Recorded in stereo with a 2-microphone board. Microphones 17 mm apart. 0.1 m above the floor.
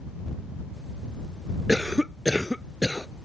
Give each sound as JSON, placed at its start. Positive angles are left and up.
{"t": 1.7, "sound": "a cough", "side_deg": -25}